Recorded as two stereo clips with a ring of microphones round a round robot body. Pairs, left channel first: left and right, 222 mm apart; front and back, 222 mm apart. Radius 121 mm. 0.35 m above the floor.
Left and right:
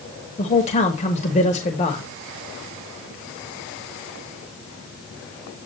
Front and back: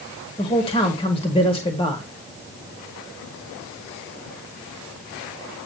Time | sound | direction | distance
0.4 | a man speaking | 50° left | 1.0 m